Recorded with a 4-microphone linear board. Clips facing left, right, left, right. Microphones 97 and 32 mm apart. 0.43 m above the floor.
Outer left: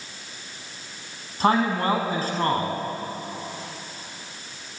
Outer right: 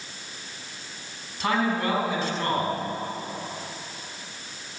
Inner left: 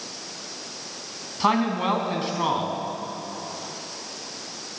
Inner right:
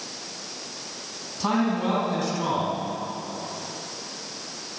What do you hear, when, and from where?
1.4 s a man speaking: 40° left (ahead or behind), 4.5 m